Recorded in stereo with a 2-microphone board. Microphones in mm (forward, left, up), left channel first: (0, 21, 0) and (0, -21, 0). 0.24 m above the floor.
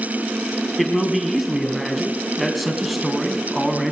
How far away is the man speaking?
About 1.9 m.